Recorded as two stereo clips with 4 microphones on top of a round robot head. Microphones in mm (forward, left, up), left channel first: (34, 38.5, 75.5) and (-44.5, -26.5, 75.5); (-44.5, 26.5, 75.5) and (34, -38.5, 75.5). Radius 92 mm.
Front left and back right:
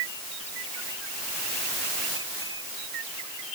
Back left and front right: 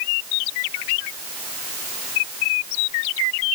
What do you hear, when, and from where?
Only background noise.